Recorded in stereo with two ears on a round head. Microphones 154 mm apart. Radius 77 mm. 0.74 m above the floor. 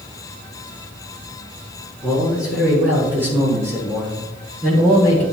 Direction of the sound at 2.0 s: 5° right (ahead or behind).